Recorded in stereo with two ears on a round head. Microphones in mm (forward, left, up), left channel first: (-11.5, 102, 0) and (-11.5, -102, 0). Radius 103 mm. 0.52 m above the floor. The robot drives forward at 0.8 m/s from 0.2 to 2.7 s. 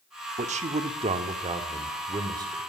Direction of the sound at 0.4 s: 30° right (ahead or behind).